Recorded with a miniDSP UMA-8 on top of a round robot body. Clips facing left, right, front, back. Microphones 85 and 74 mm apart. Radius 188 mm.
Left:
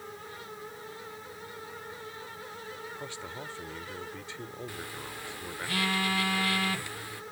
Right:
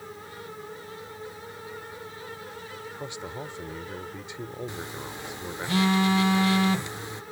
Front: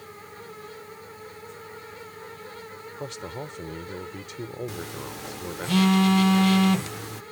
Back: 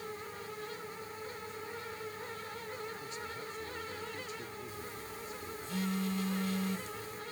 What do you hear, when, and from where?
3.0 s a man speaking: 20° right
4.7 s a phone buzzing: 20° right